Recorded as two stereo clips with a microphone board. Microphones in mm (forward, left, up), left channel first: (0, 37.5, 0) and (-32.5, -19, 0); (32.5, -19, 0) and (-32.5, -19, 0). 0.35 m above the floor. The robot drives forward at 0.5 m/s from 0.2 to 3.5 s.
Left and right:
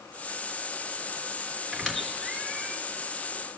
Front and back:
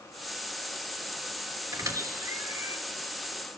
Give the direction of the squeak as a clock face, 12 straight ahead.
7 o'clock.